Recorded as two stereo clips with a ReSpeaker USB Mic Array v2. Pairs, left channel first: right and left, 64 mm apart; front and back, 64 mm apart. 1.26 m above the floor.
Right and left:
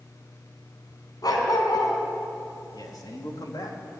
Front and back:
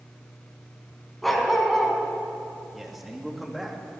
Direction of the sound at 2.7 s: 95° right.